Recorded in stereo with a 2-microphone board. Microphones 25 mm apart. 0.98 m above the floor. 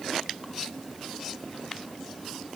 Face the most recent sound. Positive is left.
No sound to turn to.